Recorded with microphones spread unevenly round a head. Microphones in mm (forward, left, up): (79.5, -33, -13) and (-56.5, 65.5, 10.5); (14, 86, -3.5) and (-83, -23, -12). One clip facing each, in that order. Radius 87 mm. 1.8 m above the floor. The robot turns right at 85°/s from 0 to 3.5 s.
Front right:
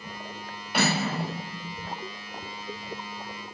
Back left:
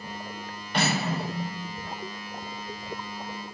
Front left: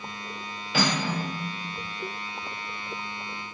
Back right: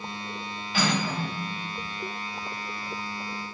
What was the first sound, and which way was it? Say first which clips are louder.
Cutlery clinking: front right 1 dB, even; 50° left.